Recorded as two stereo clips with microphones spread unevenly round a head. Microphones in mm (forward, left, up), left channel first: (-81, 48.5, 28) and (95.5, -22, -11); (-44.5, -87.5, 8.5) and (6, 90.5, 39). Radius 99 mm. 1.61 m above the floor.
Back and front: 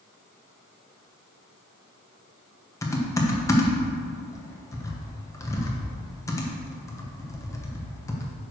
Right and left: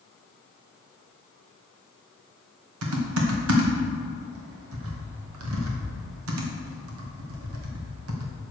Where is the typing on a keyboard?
80° left, 1.7 m.